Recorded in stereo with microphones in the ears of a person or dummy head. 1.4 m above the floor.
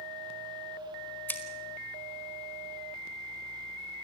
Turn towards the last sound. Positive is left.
turn(degrees=15)  # may be behind; listen again after turning